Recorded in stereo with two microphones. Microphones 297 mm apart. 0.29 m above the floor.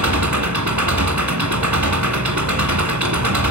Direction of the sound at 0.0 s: 75° right (ahead or behind).